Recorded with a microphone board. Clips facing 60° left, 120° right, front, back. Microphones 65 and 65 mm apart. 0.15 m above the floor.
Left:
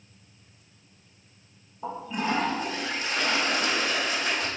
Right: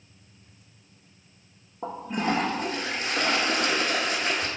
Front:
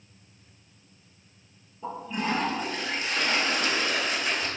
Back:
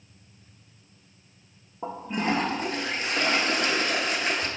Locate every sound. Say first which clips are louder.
1.8 s a toilet flushing: right 2 dB, back 2 dB; 145° right, 0.8 m